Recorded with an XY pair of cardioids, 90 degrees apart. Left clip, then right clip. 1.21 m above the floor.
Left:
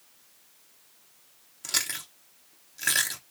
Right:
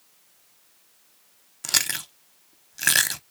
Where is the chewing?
60° right, 0.6 m.